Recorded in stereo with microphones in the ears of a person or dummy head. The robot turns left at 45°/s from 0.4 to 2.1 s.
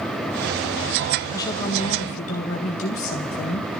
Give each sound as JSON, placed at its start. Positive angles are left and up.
{"t": 1.3, "sound": "a woman speaking", "azimuth_deg": 160, "distance_m": 1.0}